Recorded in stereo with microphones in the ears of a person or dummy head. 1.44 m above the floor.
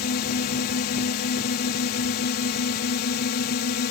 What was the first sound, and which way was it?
A drone, 50° left (ahead or behind).